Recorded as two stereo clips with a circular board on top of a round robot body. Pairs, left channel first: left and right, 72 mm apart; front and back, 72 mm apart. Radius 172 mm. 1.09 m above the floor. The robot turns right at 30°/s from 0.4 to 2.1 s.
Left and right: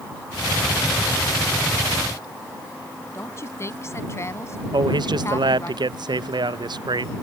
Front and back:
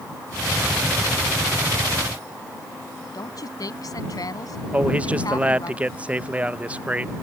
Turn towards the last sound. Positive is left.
turn(degrees=-105)